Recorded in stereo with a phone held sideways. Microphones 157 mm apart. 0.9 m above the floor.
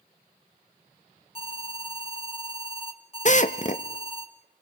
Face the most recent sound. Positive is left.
turn(degrees=50)  # may be behind; listen again after turning